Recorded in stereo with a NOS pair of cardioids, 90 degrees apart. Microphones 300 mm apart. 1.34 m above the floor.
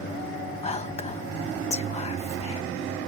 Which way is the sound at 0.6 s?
20° left.